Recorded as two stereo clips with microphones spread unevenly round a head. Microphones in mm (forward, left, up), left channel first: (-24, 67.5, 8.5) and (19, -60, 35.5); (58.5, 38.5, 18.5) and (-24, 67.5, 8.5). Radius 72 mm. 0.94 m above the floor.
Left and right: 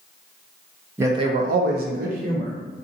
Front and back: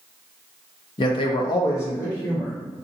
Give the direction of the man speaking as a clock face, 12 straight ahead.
12 o'clock.